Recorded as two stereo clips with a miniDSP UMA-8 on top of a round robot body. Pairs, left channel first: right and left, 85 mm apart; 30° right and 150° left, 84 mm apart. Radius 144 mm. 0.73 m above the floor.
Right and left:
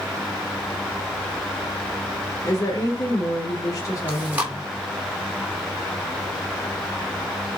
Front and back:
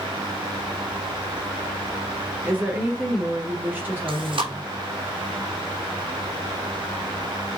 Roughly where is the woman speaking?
Behind right.